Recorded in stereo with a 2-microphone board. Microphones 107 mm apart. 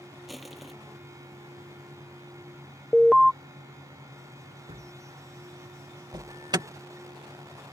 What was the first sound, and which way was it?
Crushing, centre (ahead or behind).